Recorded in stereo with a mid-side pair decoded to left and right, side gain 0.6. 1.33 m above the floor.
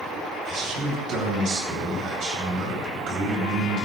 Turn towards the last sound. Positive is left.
turn(degrees=-50)